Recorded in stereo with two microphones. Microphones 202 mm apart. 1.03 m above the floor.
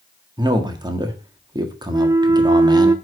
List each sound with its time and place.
0.4 s a man speaking: 20° right (ahead or behind), 1.6 m
1.9 s a flute: 15° right (ahead or behind), 0.5 m